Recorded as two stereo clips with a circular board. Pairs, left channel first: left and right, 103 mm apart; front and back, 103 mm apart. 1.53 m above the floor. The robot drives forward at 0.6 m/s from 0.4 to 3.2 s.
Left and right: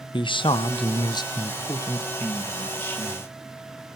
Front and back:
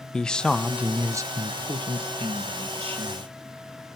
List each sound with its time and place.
0.1 s a man speaking: 80° left, 0.7 m; by 3.3 s 160° left, 1.7 m